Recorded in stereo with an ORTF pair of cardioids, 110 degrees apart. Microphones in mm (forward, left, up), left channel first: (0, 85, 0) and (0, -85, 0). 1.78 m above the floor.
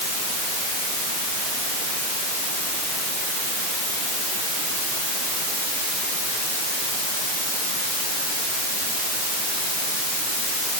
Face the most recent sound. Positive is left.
No sound to turn to.